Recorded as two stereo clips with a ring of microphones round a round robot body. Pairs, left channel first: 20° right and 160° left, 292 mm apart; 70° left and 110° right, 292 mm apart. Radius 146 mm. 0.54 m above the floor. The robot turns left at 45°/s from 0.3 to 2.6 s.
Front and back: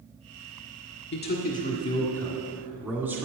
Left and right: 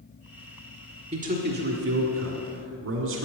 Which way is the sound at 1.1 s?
55° right.